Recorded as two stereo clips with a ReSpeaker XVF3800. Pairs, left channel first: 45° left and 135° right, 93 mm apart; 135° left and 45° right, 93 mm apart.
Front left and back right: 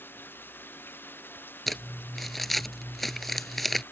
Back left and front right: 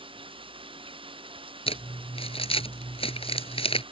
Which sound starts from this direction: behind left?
Crumpling, at 1.7 s.